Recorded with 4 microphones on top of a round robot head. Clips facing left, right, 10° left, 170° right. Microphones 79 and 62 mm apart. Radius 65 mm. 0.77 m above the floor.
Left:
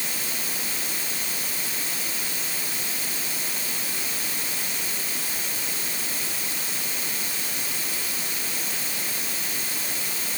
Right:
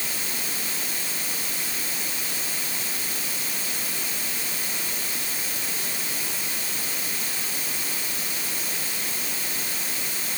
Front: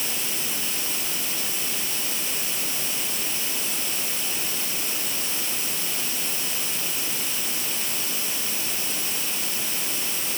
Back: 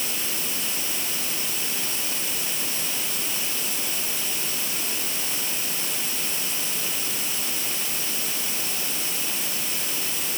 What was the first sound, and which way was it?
Only background noise.